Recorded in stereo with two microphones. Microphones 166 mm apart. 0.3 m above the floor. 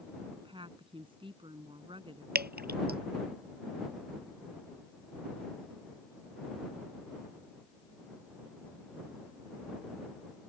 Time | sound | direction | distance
0.4 | a woman speaking | 30° right (ahead or behind) | ?
2.4 | dripping | 70° right (ahead or behind) | ?